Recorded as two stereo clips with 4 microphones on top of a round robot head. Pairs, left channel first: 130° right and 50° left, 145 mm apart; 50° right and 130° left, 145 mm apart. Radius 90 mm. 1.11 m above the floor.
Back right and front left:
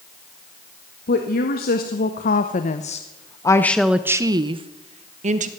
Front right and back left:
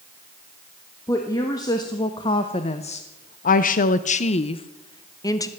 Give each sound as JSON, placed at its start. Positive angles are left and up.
{"t": 1.1, "sound": "a woman speaking", "azimuth_deg": -120, "distance_m": 1.9}